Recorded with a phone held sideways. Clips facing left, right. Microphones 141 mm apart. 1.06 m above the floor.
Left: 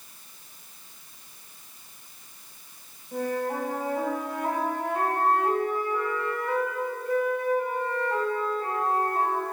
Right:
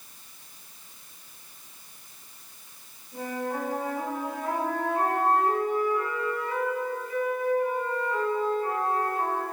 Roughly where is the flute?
Left.